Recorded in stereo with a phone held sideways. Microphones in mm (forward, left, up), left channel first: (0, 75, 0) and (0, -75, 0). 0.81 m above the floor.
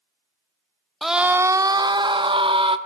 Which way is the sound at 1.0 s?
Centre (ahead or behind).